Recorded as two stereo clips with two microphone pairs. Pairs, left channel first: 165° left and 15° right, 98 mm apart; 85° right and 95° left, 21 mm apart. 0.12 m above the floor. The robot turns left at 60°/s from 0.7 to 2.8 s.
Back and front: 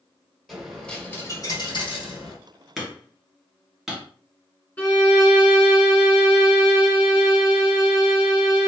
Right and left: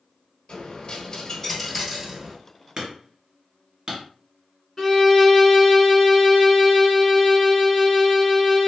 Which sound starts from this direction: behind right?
A violin, at 4.8 s.